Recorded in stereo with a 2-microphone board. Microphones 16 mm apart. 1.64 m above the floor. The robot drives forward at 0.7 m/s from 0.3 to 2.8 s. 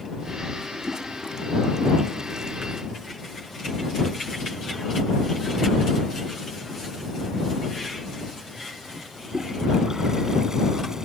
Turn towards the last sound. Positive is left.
turn(degrees=-30)  # may be behind; listen again after turning